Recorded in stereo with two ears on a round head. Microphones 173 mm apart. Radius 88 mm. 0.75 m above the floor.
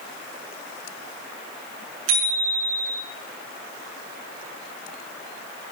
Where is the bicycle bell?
85° right, 7 m.